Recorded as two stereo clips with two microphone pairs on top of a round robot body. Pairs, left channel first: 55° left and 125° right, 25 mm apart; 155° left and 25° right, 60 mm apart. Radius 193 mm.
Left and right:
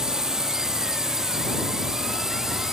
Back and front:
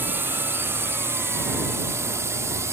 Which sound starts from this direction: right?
A drone, at 0.0 s.